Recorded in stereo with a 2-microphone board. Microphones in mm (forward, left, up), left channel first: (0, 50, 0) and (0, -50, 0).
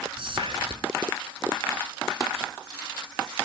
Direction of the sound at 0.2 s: 60° right (ahead or behind).